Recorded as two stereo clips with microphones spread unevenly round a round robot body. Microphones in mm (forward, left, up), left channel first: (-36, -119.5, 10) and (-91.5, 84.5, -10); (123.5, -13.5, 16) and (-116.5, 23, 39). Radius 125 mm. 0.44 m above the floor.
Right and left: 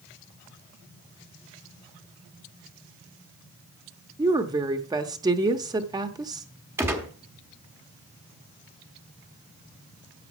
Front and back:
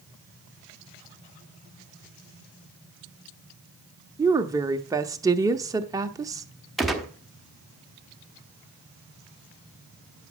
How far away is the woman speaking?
About 0.8 m.